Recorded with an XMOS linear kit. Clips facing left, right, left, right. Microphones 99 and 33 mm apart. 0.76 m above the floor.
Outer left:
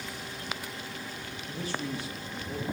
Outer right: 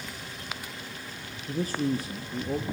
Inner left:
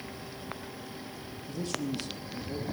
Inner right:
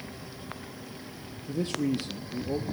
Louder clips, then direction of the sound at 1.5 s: Outer right 7 dB, inner right 6 dB; 40° right (ahead or behind).